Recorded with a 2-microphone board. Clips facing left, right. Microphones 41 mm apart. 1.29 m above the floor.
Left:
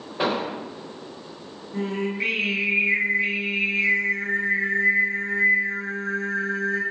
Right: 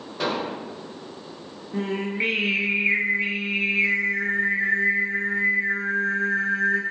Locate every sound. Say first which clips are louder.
0.2 s an explosion: left 2 dB; 20° left (ahead or behind), 0.5 m
1.7 s singing: even; 30° right (ahead or behind), 0.9 m